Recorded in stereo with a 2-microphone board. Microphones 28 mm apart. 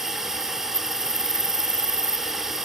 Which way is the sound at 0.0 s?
15° right (ahead or behind).